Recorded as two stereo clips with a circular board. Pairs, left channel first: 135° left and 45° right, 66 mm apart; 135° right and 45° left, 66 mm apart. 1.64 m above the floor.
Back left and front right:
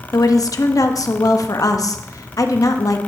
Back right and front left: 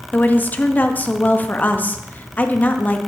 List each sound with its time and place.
0.1 s a woman speaking: 165° left, 0.9 m